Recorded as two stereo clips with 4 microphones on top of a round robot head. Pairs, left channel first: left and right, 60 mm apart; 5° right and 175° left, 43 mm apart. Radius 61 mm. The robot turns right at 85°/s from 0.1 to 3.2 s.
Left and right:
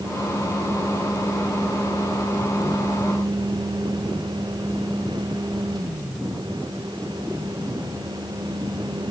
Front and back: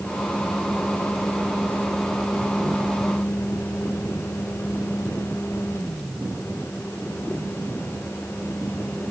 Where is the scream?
I don't hear a scream.